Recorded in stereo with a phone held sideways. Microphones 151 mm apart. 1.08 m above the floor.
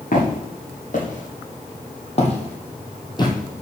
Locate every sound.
0.1 s footsteps: 65° left (ahead or behind), 2.5 m; by 3.6 s 20° left (ahead or behind), 1.4 m